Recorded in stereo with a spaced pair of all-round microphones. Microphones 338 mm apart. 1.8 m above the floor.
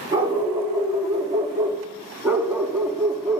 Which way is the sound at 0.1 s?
15° right (ahead or behind).